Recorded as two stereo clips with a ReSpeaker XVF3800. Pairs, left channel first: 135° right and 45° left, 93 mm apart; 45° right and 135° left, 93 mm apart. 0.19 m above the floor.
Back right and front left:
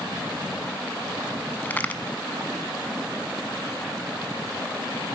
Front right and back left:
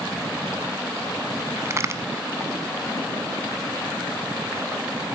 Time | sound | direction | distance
1.6 | a crack | 165° left | 1.0 m